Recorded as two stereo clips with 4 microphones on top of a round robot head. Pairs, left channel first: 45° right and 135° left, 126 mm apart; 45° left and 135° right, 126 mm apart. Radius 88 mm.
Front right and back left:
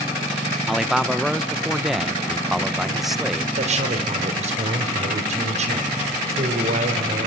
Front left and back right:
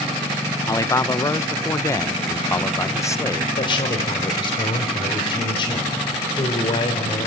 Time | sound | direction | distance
0.7 | a man speaking | 50° left | 0.8 m
3.6 | a man speaking | 100° left | 3.5 m